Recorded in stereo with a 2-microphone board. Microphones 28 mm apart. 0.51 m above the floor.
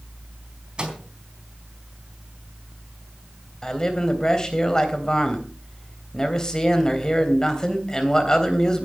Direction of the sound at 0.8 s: 35° right (ahead or behind).